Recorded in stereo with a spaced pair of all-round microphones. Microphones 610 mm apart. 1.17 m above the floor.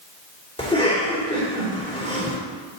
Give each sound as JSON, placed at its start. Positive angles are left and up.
{"t": 0.6, "sound": "a cough", "side_deg": 10, "distance_m": 3.5}